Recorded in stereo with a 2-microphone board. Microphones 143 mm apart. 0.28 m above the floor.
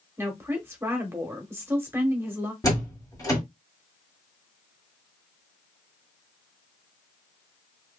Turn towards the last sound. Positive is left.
turn(degrees=25)  # may be behind; listen again after turning